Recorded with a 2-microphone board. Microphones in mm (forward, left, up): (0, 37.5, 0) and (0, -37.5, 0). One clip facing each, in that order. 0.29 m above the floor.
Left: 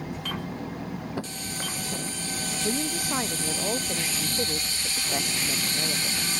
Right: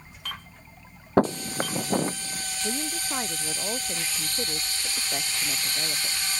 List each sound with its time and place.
0.0 s an engine running: 85° left
1.2 s footsteps: 55° right (ahead or behind); by 2.5 s 40° right (ahead or behind)
2.6 s a woman speaking: 10° left (ahead or behind)